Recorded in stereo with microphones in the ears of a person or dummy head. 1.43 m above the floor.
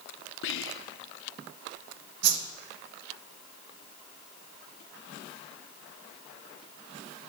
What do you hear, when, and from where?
0.4 s whispering: 75° left (ahead or behind), 0.7 m
2.2 s a whoosh: 60° right (ahead or behind), 1.1 m